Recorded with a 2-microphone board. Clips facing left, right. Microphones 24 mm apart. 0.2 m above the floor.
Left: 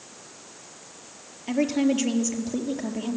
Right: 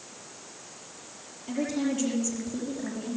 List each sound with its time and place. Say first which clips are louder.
1.5 s a woman speaking: left 6 dB; 55° left (ahead or behind), 4.5 m